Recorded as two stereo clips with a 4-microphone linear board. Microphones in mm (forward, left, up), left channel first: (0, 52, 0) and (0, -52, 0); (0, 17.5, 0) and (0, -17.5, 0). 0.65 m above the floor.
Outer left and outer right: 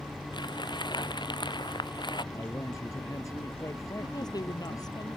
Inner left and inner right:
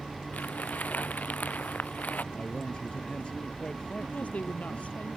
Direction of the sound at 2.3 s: 30° left (ahead or behind).